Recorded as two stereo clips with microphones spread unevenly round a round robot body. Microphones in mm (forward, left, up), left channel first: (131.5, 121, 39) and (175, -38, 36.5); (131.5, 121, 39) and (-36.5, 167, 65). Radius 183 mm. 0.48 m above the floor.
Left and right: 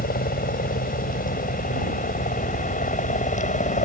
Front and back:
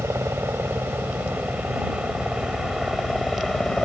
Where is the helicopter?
90° left; by 3.9 s 70° left.